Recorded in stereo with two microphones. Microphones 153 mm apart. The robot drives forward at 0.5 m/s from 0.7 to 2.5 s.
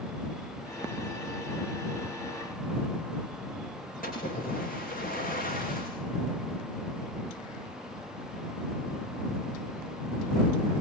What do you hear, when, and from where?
4.0 s a splash: 65° left (ahead or behind), 9 m